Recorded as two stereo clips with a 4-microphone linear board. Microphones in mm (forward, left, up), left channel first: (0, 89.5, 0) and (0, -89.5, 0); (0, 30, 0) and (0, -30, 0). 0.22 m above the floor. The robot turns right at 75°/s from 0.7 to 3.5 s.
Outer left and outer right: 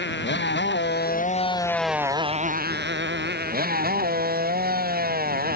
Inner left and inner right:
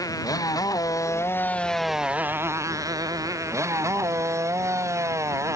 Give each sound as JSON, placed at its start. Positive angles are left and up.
{"t": 0.0, "sound": "a motorcycle", "azimuth_deg": 95}